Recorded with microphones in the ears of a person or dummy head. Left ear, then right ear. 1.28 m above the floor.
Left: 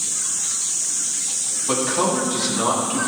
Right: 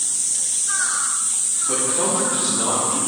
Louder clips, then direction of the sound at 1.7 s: Left 3 dB; 80° left.